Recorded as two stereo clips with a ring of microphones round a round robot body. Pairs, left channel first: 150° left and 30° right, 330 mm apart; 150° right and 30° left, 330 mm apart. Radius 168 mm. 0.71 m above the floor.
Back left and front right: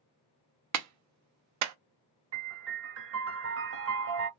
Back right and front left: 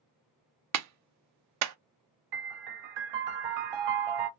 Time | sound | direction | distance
0.7 | a clap | straight ahead | 0.6 m
2.3 | a piano | 20° left | 0.7 m